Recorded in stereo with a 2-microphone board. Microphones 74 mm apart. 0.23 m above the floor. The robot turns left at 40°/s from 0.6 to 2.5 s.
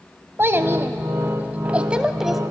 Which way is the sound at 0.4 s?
35° right (ahead or behind).